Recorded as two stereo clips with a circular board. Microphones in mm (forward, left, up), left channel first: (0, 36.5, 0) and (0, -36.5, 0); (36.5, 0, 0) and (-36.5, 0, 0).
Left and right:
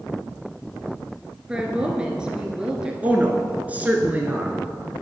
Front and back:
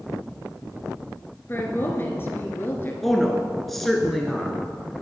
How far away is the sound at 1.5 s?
About 1.3 m.